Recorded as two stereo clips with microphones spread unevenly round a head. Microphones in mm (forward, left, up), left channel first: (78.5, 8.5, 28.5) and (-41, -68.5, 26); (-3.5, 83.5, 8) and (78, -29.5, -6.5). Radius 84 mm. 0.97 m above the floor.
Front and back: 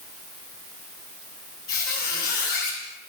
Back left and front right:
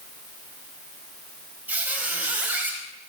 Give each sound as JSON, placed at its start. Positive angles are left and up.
{"t": 1.7, "sound": "a squeak", "azimuth_deg": 25, "distance_m": 4.0}